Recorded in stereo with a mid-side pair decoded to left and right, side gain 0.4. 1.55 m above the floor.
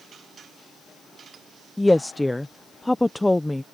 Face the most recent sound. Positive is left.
turn(degrees=15)